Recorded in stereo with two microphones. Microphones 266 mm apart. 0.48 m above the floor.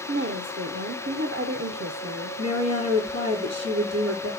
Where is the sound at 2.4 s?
70° right (ahead or behind), 7 m.